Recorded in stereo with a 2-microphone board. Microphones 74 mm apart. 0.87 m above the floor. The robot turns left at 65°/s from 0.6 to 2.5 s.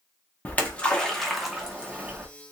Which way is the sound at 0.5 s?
20° left (ahead or behind).